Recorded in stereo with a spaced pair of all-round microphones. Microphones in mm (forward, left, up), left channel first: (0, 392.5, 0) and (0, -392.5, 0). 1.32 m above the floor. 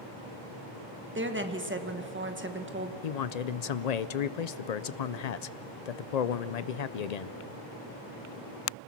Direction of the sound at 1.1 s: 15° right (ahead or behind).